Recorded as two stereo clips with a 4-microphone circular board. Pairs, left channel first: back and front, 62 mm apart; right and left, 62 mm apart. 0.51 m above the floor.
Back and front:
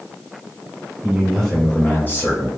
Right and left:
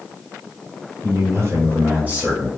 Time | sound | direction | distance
1.0 | a man speaking | 70° left | 1.7 m